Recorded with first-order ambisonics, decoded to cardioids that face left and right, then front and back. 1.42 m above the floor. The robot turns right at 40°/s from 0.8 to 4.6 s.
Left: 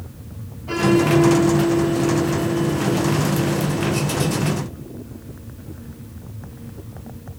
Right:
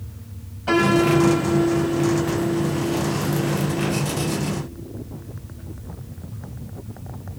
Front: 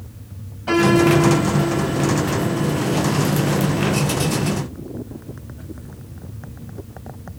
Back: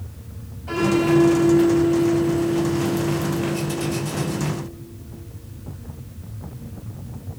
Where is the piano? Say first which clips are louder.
Even, front 4 dB; 50° right, 8 m; by 4.3 s 90° left, 8 m.